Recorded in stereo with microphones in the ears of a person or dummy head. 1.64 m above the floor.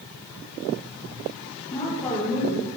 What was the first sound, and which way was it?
A woman speaking, 25° left (ahead or behind).